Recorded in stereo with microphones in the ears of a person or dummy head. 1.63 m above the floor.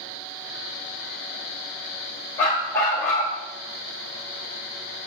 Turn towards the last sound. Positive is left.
turn(degrees=5)  # may be behind; listen again after turning